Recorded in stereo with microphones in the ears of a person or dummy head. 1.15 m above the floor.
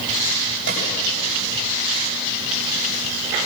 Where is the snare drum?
65° right (ahead or behind), 7.5 m.